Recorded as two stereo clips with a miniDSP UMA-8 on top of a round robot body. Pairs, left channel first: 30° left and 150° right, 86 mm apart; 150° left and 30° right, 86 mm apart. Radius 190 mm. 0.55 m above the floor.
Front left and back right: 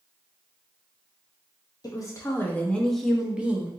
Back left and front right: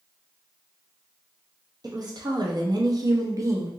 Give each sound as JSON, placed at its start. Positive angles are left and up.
{"t": 1.8, "sound": "a woman speaking", "azimuth_deg": 0, "distance_m": 0.9}